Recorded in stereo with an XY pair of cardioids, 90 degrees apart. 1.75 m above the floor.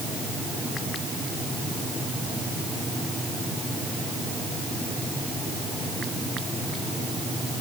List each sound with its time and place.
Only background noise.